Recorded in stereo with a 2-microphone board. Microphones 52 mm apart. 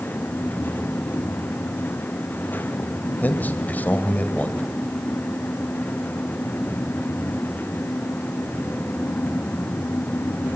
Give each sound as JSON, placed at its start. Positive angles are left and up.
{"t": 3.2, "sound": "a man speaking", "side_deg": 35, "distance_m": 2.5}